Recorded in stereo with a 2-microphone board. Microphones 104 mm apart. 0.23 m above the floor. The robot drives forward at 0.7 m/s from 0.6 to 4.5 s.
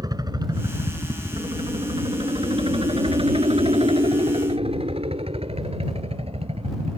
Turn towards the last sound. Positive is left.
turn(degrees=-75)  # may be behind; listen again after turning